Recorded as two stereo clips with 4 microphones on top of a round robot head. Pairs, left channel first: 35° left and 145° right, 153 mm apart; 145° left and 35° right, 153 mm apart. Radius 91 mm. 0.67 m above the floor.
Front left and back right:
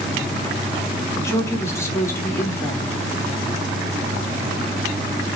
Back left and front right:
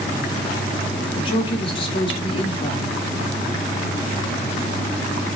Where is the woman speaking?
100° left, 1.5 m.